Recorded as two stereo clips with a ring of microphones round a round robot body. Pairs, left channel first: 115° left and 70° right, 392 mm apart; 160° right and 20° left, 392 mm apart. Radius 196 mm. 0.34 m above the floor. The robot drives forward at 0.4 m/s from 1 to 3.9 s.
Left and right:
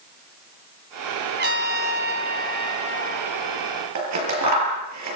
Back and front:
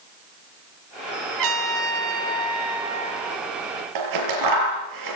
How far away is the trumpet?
About 2 m.